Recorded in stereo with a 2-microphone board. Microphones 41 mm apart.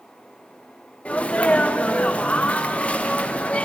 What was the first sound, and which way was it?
A sneeze, 35° left (ahead or behind).